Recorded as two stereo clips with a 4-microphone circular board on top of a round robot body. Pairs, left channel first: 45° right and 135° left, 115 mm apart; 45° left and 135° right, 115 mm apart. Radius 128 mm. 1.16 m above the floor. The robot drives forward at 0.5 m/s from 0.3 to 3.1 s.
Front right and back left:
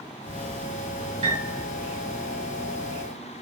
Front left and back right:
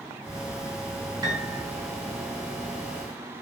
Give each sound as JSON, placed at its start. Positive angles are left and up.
{"t": 1.2, "sound": "a piano", "azimuth_deg": 170, "distance_m": 1.7}